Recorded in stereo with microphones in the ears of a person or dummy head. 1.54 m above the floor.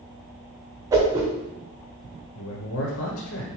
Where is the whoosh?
15° right (ahead or behind), 0.8 m.